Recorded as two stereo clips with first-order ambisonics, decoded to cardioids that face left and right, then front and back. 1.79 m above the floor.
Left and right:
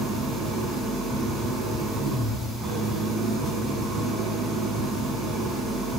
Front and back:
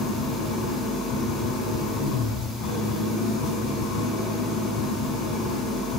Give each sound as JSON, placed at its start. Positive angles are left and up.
{"t": 0.0, "sound": "an engine running", "azimuth_deg": -25, "distance_m": 5.5}